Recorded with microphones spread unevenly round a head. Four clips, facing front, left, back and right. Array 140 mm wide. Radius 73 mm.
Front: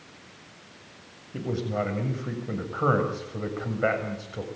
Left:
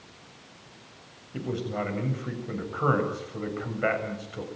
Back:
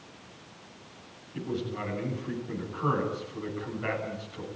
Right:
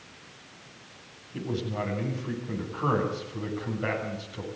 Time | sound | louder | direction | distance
1.3 | a man speaking | left 1 dB, front 4 dB | 20° left | 7.5 m